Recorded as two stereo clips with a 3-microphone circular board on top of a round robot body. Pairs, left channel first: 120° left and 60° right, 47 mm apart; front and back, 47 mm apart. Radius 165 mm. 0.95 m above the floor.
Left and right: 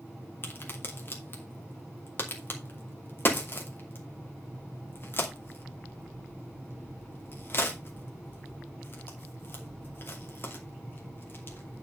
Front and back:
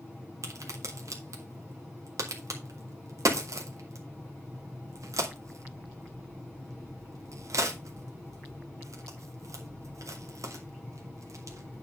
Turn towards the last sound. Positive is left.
turn(degrees=170)